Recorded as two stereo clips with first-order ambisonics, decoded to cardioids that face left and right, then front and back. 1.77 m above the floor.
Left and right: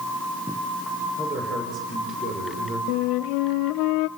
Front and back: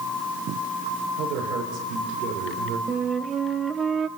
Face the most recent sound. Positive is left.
turn(degrees=110)